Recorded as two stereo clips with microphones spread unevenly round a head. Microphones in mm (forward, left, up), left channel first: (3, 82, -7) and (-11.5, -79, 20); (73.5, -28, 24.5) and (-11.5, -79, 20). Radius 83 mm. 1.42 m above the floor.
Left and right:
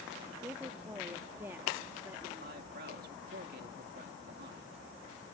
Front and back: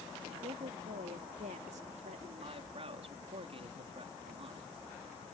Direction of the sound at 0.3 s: 170° right.